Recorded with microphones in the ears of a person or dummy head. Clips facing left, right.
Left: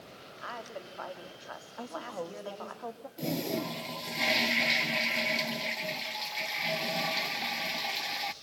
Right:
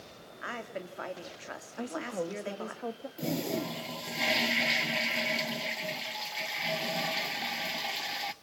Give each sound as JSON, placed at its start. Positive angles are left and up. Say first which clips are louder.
{"t": 0.4, "sound": "a woman speaking", "louder": "right 3 dB", "side_deg": -30, "distance_m": 2.5}
{"t": 1.8, "sound": "a woman speaking", "louder": "right 4 dB", "side_deg": -30, "distance_m": 1.8}
{"t": 3.2, "sound": "a toilet flushing", "louder": "even", "side_deg": -5, "distance_m": 0.6}